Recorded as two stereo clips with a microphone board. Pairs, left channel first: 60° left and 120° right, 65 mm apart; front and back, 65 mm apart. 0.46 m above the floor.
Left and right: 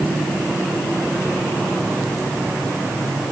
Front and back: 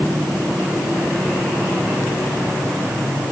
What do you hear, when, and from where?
Only background noise.